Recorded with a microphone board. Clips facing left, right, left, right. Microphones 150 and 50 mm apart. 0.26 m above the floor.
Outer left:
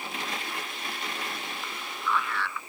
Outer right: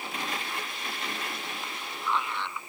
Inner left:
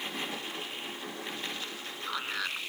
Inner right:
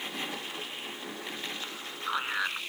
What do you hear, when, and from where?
1.6 s a man speaking: 20° right (ahead or behind)